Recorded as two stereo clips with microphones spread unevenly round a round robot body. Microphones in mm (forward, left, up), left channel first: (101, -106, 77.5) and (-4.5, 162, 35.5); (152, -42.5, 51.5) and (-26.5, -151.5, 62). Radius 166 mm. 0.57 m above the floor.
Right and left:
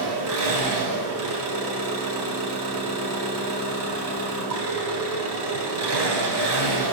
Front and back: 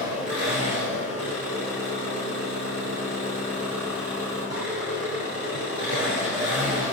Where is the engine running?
145° left, 2.5 m.